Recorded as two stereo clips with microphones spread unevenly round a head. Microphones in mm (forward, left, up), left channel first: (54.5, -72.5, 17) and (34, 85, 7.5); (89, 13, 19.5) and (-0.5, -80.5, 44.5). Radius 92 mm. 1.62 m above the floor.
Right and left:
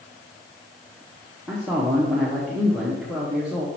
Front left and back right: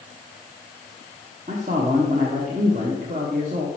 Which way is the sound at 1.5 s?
170° right.